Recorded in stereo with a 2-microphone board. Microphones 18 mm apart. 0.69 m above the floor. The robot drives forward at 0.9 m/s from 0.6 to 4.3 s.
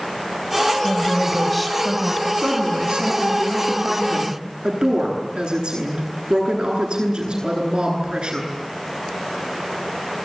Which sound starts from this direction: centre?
A woman speaking, at 0.8 s.